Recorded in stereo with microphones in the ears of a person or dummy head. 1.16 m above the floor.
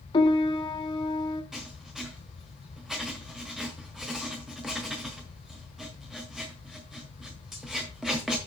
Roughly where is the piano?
Left.